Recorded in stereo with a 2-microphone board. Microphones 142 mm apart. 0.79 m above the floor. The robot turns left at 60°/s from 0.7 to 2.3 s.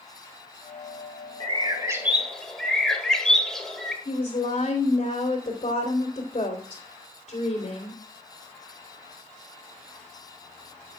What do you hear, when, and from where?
1.4 s a bird: 130° right, 1.8 m; by 4.0 s 175° left, 1.8 m
4.0 s a woman speaking: 55° left (ahead or behind), 3 m